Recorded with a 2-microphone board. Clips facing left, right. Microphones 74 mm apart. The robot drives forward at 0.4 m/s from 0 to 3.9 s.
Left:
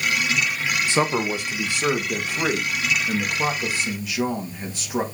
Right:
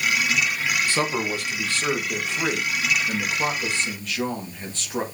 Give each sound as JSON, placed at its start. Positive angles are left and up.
{"t": 0.9, "sound": "a man speaking", "side_deg": 20, "distance_m": 1.2}